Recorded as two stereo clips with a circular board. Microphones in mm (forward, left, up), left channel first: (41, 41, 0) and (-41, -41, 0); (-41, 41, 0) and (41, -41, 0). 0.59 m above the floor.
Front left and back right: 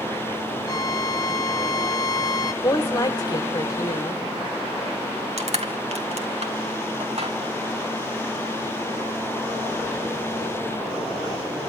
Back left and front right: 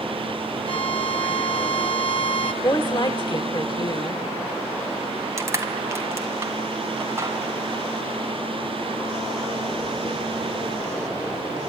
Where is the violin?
100° left, 1.1 m.